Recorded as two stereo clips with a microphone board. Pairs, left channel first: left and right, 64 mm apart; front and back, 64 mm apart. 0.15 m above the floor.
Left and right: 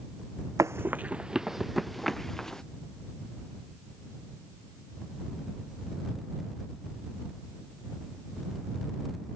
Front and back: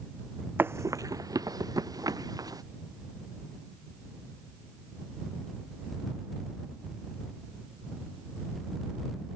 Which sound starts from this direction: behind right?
Running footsteps, at 0.6 s.